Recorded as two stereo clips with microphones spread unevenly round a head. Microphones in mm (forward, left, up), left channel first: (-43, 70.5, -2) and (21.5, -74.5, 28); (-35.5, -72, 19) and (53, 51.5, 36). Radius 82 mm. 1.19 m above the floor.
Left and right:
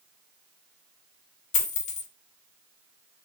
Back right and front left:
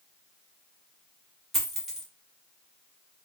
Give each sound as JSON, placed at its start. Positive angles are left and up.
{"t": 1.5, "sound": "a dropped coin", "azimuth_deg": 135, "distance_m": 0.6}